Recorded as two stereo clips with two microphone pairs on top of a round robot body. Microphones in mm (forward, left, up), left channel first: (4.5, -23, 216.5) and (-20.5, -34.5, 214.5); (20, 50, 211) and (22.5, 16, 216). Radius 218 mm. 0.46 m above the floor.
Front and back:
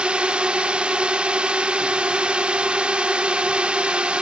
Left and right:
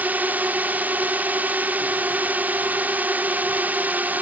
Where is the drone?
120° right.